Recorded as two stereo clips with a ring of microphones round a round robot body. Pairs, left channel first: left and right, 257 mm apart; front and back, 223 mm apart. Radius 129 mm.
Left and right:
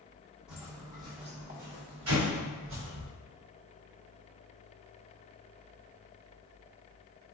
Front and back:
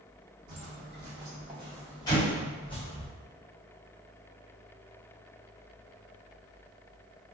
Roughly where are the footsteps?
Behind.